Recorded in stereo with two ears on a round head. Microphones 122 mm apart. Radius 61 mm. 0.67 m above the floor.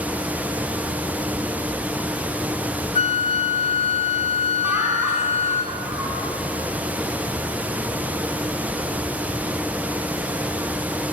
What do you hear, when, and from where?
3.0 s a flute: 45° left (ahead or behind), 0.8 m
4.6 s laughter: 15° right (ahead or behind), 6.5 m